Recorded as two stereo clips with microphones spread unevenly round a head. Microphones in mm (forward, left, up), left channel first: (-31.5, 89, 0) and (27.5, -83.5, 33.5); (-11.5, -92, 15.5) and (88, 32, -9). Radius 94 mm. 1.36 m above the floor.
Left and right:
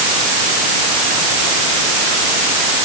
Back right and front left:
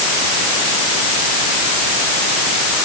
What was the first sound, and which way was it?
Only background noise.